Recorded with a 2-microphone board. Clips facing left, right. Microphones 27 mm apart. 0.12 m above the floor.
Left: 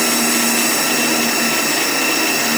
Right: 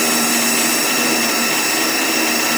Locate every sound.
Only background noise.